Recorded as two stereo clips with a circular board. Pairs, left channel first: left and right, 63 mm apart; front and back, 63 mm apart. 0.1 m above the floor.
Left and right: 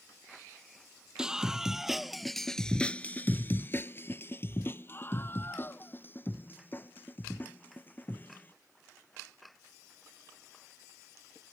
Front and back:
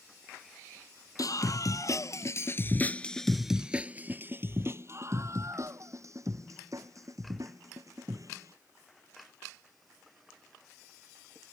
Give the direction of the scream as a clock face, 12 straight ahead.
12 o'clock.